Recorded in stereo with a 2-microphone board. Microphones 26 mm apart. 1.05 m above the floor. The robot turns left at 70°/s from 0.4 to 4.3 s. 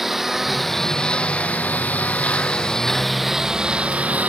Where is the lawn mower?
15° right (ahead or behind); by 4.3 s 80° right.